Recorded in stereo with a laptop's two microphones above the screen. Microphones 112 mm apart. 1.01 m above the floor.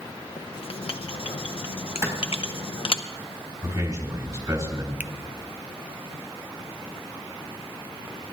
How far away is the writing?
About 0.8 m.